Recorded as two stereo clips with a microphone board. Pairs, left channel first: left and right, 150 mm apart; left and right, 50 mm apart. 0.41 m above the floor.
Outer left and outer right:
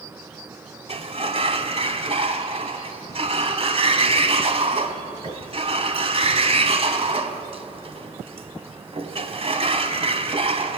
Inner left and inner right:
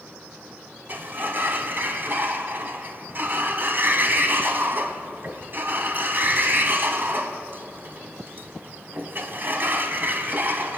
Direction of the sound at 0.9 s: 40° right (ahead or behind).